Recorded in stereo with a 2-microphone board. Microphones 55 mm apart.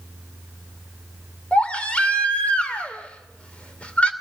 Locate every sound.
1.5 s a baby crying: 20° left (ahead or behind), 2.5 m